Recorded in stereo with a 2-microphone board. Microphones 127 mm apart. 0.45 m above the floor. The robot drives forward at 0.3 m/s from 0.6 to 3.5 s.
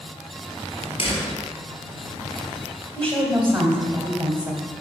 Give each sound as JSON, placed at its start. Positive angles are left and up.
{"t": 1.0, "sound": "a door slam", "side_deg": 45, "distance_m": 3.0}
{"t": 3.0, "sound": "a woman speaking", "side_deg": -45, "distance_m": 2.5}